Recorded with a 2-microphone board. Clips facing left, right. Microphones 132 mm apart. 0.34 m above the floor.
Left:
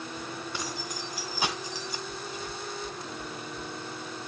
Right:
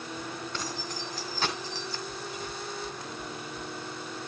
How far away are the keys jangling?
About 3 m.